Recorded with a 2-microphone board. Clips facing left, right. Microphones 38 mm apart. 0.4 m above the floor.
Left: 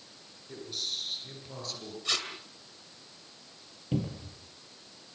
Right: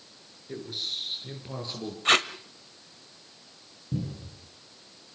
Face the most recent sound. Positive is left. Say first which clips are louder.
# left 1 dB
turn(degrees=85)